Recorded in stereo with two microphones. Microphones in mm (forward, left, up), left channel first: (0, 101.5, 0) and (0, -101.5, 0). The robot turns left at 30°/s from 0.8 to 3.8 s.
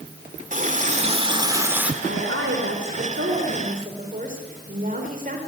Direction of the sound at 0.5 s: 140° right.